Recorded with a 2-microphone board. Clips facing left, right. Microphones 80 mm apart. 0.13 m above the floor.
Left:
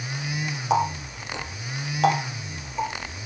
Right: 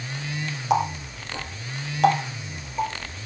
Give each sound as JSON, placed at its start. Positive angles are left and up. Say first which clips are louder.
{"t": 0.7, "sound": "a running tap", "louder": "even", "side_deg": 0, "distance_m": 2.0}